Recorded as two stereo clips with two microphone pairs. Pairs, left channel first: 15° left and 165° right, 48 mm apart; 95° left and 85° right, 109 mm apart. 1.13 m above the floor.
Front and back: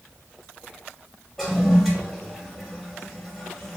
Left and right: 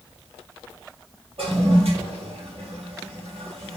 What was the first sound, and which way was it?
A toilet flushing, 70° right.